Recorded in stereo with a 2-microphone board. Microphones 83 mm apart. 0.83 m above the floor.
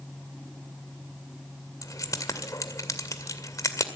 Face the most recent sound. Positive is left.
turn(degrees=40)  # may be behind; listen again after turning